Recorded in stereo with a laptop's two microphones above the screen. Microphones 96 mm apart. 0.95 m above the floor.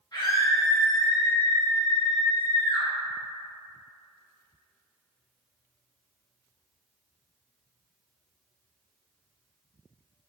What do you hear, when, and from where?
0.1 s a scream: 45° left (ahead or behind), 1.1 m